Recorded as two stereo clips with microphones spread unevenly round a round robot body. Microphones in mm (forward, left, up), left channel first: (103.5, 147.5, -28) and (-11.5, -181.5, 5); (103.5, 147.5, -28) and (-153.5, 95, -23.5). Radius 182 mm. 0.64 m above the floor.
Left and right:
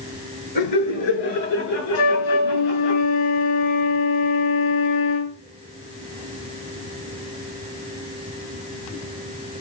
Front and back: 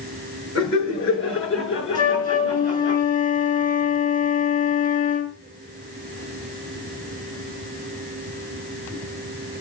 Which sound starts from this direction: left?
A flute, at 1.9 s.